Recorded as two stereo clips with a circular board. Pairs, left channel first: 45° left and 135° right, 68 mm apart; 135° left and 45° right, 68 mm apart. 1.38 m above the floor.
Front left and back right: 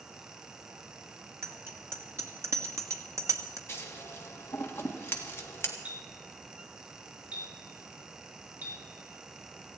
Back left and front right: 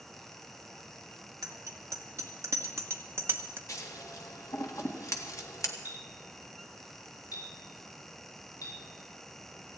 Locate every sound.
1.4 s a bicycle bell: 85° right, 2.5 m; by 3.6 s 100° right, 1.2 m
3.7 s scissors: 100° left, 1.8 m
5.8 s a clink: 155° left, 3.5 m